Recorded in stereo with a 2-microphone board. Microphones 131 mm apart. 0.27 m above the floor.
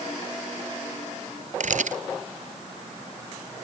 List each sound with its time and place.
1.6 s a camera shutter: 70° right (ahead or behind)